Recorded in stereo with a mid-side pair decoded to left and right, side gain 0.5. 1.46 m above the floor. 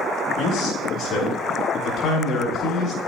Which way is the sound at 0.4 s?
65° left.